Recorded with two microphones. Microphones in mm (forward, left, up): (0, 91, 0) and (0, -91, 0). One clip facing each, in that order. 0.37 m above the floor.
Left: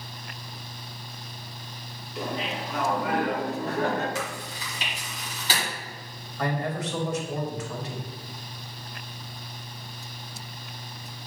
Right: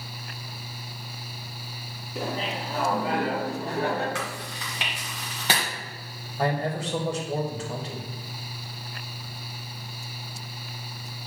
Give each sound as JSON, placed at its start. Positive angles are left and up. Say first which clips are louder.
{"t": 2.1, "sound": "laughter", "louder": "right 1 dB", "side_deg": -50, "distance_m": 2.5}
{"t": 4.2, "sound": "chewing", "louder": "even", "side_deg": -70, "distance_m": 1.9}
{"t": 6.4, "sound": "a man speaking", "louder": "right 2 dB", "side_deg": -30, "distance_m": 1.5}